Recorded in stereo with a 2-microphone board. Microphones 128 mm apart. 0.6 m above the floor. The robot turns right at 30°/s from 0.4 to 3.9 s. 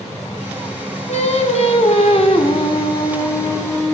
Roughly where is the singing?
Left.